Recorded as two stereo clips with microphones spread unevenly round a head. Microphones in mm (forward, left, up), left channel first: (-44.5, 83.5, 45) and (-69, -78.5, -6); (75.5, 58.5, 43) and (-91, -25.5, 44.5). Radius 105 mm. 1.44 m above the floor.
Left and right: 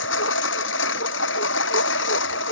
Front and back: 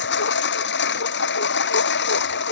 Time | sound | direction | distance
0.0 | a lawn mower | 55° left | ?